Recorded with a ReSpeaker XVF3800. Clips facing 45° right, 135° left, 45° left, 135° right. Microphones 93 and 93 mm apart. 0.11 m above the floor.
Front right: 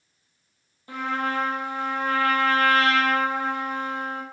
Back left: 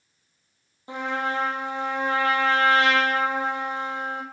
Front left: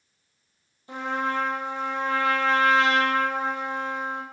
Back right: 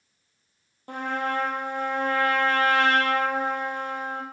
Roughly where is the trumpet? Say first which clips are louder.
Even, even; behind.